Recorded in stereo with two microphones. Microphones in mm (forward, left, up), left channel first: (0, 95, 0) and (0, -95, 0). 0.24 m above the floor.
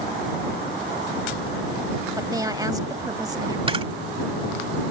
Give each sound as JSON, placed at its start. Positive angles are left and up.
{"t": 2.2, "sound": "a woman speaking", "side_deg": -20}
{"t": 3.7, "sound": "a camera shutter", "side_deg": -30}